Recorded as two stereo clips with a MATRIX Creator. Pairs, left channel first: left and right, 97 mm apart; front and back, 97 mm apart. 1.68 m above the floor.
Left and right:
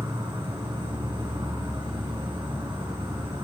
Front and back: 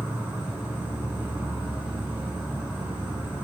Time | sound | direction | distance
0.0 | an insect | 110° right | 4.5 m